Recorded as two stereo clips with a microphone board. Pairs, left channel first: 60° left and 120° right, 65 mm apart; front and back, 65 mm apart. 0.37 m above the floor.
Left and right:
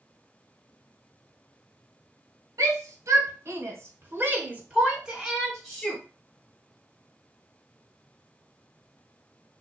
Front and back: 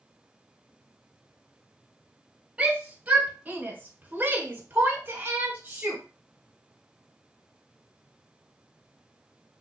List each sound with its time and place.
2.6 s a shout: 110° right, 1.4 m; by 6.0 s 130° left, 1.1 m